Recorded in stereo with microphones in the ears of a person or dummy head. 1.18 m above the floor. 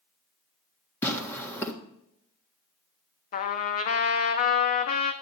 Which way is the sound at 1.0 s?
15° left (ahead or behind).